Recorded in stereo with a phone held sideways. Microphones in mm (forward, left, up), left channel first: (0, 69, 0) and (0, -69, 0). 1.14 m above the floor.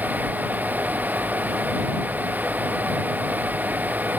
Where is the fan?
15° right (ahead or behind).